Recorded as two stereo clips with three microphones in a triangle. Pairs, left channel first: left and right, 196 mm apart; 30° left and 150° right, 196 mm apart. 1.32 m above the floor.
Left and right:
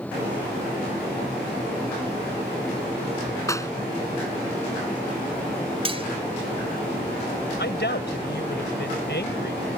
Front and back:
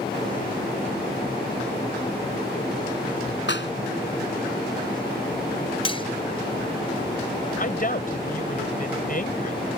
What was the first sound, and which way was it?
A clap, 15° left.